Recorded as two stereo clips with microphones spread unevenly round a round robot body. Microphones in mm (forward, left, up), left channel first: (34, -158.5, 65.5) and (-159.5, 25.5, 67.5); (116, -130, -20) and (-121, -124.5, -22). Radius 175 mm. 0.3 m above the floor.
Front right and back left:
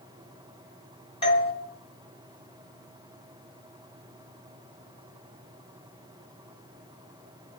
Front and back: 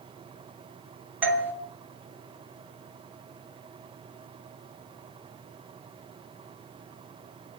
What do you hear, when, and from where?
1.2 s a doorbell: 105° right, 1.7 m